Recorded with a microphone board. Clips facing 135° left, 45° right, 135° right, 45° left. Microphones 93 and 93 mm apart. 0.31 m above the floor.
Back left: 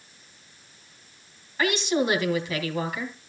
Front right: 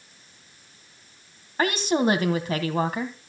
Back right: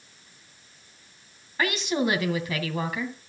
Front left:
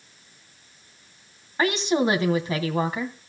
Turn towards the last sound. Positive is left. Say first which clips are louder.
# front right 2 dB, front left 4 dB
turn(degrees=-10)